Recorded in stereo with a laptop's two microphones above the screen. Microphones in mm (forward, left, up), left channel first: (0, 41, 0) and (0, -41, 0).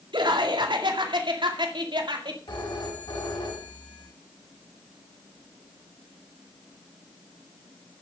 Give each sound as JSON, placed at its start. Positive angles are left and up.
{"t": 0.1, "sound": "laughter", "side_deg": -75, "distance_m": 2.0}
{"t": 2.5, "sound": "a phone ringing", "side_deg": 70, "distance_m": 5.0}